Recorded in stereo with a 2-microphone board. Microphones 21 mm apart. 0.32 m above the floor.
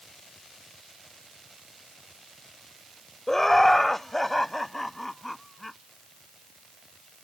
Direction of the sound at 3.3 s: 15° left (ahead or behind).